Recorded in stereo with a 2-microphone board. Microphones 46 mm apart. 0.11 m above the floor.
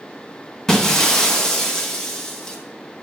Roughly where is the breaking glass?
Centre.